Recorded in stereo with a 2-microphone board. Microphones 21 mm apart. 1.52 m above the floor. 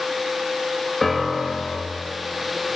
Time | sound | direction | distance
1.0 | a piano | 10° left (ahead or behind) | 3 m